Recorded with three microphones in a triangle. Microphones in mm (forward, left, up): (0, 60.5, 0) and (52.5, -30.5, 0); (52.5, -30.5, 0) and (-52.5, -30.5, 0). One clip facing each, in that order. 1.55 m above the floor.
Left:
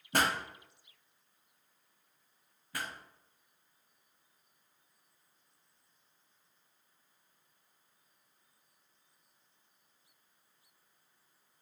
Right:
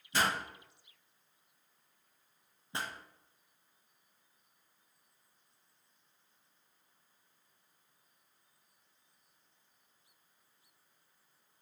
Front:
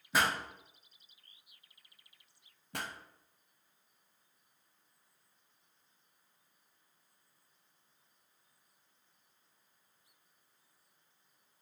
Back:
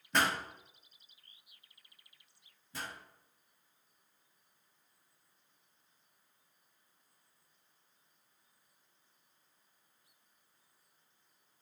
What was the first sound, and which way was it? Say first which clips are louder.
A pop: left 2 dB, even; 85° left.